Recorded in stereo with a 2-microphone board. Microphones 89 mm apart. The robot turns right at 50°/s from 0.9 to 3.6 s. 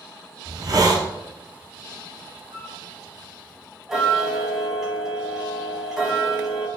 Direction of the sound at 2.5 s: 70° right (ahead or behind).